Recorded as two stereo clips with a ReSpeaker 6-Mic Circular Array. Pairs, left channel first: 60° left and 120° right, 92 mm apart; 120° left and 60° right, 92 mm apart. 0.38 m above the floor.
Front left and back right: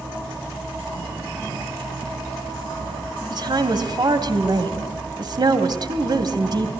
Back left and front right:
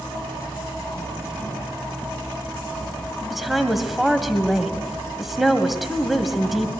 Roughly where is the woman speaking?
Behind right.